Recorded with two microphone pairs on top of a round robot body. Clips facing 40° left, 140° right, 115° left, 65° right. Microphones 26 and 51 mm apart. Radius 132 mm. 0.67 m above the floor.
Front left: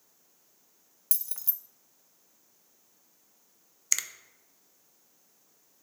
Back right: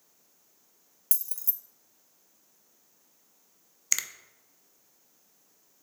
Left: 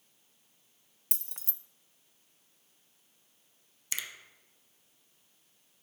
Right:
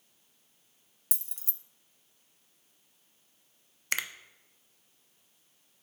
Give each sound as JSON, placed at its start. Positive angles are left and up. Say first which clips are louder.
{"t": 1.1, "sound": "keys jangling", "louder": "even, left 2 dB", "azimuth_deg": 90, "distance_m": 0.5}
{"t": 3.9, "sound": "a finger snap", "louder": "even, right 7 dB", "azimuth_deg": -60, "distance_m": 0.6}